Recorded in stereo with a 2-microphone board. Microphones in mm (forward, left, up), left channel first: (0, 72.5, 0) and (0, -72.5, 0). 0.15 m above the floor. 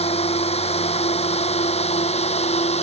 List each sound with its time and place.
0.0 s a drone: 45° left (ahead or behind); by 2.8 s 50° left (ahead or behind)